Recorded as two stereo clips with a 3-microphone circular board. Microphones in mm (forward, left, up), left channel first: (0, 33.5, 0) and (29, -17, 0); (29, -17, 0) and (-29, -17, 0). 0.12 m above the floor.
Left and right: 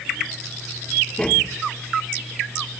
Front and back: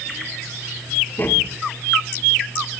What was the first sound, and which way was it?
Tapping, 45° left.